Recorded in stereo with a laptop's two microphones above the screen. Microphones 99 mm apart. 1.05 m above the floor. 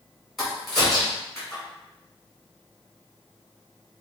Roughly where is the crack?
Centre.